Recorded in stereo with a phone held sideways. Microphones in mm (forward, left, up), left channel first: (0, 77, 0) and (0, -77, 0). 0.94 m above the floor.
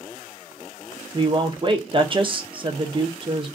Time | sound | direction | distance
1.1 | a woman speaking | 35° right (ahead or behind) | 0.5 m